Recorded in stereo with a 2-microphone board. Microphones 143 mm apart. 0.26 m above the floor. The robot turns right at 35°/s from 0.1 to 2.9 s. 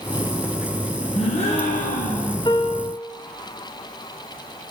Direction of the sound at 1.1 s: 45° left.